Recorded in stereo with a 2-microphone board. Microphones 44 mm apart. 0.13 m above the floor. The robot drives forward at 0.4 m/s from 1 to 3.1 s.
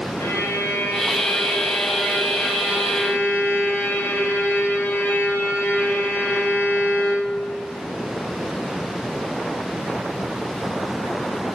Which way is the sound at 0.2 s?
65° left (ahead or behind).